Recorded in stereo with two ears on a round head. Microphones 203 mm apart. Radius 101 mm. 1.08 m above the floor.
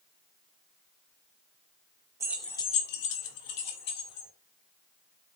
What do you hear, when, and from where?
2.2 s keys jangling: 15° right (ahead or behind), 0.6 m; by 4.3 s 85° left, 1.5 m